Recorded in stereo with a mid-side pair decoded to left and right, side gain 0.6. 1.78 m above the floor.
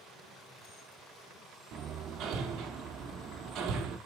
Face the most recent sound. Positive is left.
turn(degrees=-60)